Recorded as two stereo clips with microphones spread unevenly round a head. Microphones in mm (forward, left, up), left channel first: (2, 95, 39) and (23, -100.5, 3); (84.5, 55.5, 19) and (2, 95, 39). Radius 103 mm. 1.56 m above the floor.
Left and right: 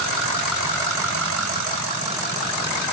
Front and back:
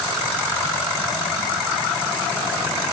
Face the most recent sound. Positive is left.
No sound to turn to.